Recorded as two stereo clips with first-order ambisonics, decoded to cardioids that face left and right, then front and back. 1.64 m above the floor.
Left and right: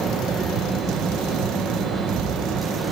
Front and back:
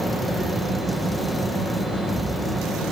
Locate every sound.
Only background noise.